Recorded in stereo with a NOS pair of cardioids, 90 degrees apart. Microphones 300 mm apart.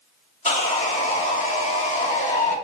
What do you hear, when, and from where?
0.5 s sawing: 25° left, 2 m